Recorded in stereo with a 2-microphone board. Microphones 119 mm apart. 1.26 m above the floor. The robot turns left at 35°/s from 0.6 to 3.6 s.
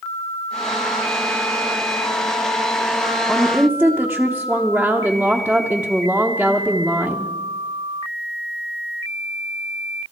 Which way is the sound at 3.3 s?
5° left (ahead or behind).